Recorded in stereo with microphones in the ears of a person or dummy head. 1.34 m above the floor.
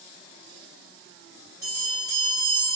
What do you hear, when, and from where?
1.6 s a bell: 15° right (ahead or behind), 1.9 m